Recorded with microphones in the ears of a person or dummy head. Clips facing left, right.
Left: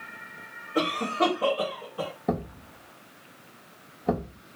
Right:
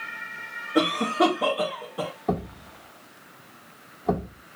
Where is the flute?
I don't hear a flute.